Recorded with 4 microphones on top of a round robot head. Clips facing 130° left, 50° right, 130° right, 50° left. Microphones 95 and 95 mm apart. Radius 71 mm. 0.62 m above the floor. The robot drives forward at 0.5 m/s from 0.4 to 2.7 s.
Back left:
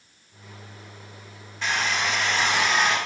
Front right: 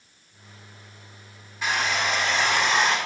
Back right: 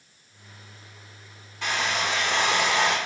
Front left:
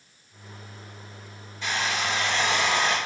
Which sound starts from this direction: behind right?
A hair dryer, at 1.6 s.